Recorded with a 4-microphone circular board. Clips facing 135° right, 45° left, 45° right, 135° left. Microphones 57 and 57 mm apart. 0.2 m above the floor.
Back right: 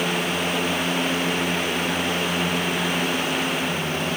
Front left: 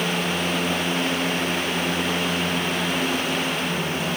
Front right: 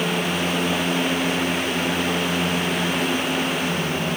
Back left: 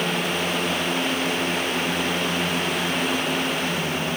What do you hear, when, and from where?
Only background noise.